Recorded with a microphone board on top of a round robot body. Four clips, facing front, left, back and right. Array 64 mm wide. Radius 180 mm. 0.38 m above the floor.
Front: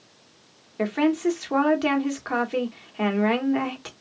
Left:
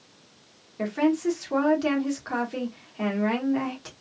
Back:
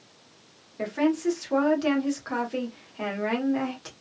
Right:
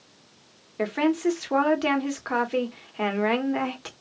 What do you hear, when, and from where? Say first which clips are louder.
0.8 s a woman speaking: even, front 3 dB; 50° right, 1.5 m